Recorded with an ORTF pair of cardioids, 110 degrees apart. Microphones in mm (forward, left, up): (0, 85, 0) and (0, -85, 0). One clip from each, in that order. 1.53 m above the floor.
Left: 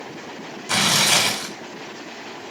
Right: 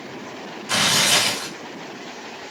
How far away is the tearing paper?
About 1.6 m.